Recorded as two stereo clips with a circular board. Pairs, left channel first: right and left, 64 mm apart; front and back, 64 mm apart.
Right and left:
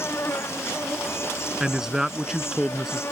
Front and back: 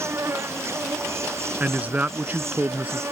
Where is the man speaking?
165° left.